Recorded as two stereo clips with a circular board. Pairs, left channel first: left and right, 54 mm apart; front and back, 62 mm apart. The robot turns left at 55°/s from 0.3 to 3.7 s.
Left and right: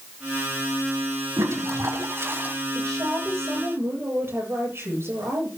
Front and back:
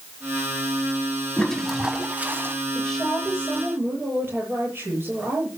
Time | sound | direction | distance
1.4 | a toilet flushing | 75° right | 1.4 m
2.8 | a woman speaking | 75° right | 8.5 m